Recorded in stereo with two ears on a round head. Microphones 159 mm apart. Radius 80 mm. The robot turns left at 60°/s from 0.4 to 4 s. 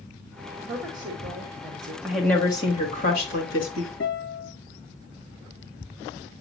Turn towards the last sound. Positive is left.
turn(degrees=70)  # may be behind; listen again after turning